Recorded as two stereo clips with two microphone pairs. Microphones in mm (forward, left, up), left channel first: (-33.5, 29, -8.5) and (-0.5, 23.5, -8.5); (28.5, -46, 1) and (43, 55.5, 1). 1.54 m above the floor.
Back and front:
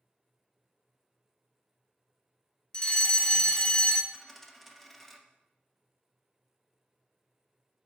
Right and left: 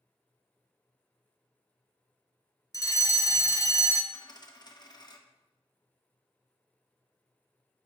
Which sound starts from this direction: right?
A dropped coin, at 4.1 s.